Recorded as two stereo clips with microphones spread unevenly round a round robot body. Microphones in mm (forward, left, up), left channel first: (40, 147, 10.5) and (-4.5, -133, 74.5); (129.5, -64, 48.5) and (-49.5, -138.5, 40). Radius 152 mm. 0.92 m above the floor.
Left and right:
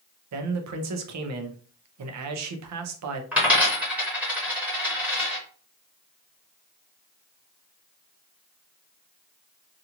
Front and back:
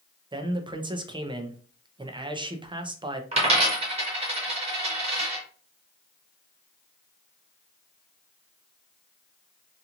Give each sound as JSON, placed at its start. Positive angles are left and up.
{"t": 0.3, "sound": "a man speaking", "azimuth_deg": -105, "distance_m": 0.6}
{"t": 3.3, "sound": "a dropped coin", "azimuth_deg": -150, "distance_m": 0.6}